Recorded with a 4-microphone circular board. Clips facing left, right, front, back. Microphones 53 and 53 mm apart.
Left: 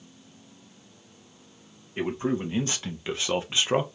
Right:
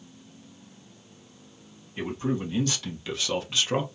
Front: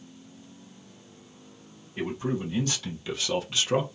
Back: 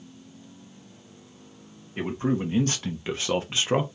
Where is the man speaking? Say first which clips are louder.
Left 2 dB, back 3 dB; 140° left, 1.7 m; by 3.9 s 135° left, 0.7 m.